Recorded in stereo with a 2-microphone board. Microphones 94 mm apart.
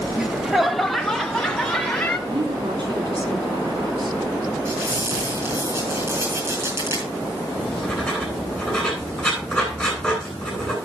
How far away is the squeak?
About 9.5 m.